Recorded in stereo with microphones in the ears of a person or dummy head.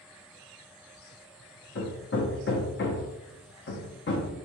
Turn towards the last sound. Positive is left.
turn(degrees=55)  # may be behind; listen again after turning